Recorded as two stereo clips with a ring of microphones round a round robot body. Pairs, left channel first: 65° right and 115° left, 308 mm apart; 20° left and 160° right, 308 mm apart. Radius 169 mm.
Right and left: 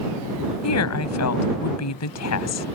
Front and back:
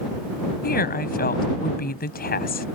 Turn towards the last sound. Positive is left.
turn(degrees=-35)